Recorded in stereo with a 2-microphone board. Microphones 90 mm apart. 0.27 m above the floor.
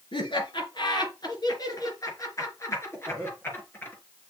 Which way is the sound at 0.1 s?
55° left (ahead or behind).